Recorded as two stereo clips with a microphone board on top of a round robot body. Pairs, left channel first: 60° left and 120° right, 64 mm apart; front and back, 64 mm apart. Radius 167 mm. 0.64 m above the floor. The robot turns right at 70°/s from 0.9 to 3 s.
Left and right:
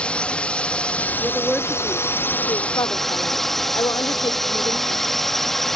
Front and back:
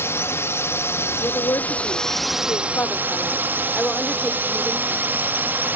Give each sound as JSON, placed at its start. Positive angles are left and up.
{"t": 0.0, "sound": "a drone", "azimuth_deg": -5}
{"t": 1.2, "sound": "a woman speaking", "azimuth_deg": -55}